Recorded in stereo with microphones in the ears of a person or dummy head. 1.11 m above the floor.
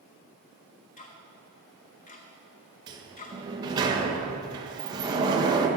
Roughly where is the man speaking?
I don't hear a man speaking.